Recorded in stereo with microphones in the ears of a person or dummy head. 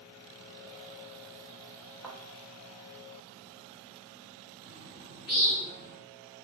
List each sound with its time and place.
2.0 s a thud: centre (ahead or behind), 0.8 m
4.6 s a bird: 45° left (ahead or behind), 1.7 m